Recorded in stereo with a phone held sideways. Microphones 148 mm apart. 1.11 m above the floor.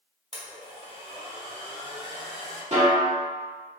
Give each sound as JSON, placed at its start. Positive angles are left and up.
{"t": 0.3, "sound": "a blender", "side_deg": -45, "distance_m": 1.3}
{"t": 2.7, "sound": "a snare drum", "side_deg": -50, "distance_m": 1.1}